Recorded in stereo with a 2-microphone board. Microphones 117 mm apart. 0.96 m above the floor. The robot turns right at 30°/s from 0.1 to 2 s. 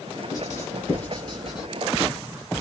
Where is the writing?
35° left (ahead or behind), 2.5 m; by 1.7 s 5° right (ahead or behind), 2.5 m.